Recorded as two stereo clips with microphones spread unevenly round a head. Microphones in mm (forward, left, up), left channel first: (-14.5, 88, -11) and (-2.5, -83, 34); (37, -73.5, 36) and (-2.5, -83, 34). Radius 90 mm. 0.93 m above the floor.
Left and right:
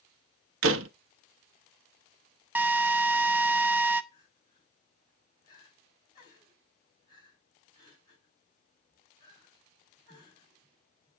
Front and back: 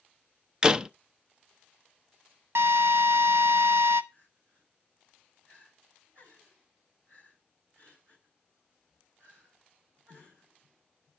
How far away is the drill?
About 0.9 m.